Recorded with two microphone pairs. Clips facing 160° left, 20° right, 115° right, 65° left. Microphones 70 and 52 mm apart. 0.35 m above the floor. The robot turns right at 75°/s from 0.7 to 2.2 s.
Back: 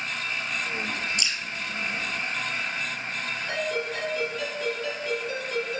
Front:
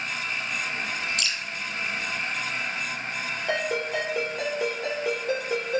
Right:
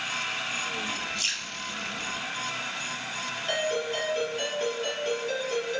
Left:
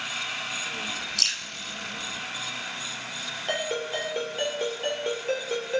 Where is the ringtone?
5° left, 4 m.